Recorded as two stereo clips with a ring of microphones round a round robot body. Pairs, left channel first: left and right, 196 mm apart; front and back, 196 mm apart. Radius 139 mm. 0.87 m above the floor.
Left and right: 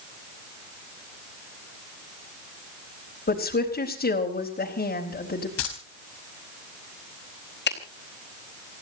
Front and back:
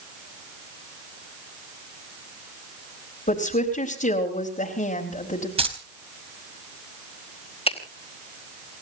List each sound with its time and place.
3.3 s a woman speaking: 50° left, 4.5 m
5.6 s keys jangling: 120° left, 4 m
7.7 s a finger snap: 60° left, 4.5 m